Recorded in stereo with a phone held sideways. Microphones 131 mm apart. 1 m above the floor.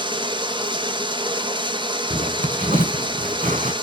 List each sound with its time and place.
0.0 s running water: 35° right (ahead or behind), 1.4 m
2.1 s a zipper: 75° right (ahead or behind), 2.5 m